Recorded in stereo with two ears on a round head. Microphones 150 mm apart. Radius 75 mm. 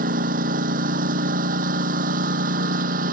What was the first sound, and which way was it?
A lawn mower, 55° right (ahead or behind).